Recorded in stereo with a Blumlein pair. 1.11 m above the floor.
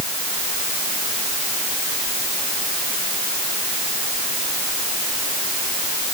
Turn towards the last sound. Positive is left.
No sound to turn to.